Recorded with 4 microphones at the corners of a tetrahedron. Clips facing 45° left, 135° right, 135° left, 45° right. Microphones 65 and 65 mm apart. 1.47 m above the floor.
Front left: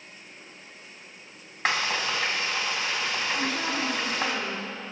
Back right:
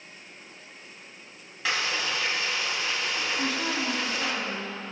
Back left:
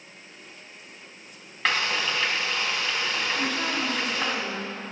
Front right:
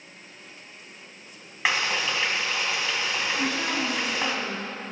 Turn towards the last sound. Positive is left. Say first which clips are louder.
# even, even
turn(degrees=45)